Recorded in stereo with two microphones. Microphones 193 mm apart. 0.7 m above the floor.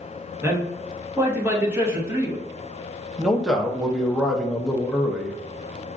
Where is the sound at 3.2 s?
Centre (ahead or behind), 0.5 m.